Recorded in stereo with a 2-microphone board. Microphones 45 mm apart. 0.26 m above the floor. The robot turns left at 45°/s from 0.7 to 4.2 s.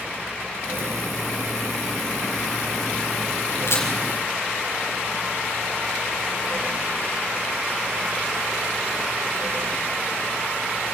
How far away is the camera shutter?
About 5.5 m.